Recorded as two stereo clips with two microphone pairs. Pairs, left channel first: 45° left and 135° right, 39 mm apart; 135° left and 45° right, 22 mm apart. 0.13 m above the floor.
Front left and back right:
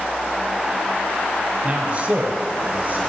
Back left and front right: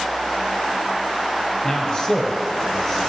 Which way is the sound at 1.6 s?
165° left.